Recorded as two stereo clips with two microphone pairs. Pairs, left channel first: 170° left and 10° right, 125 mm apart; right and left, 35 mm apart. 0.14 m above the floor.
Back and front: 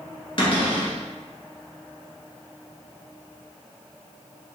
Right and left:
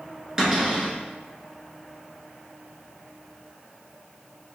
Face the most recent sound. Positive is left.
turn(degrees=150)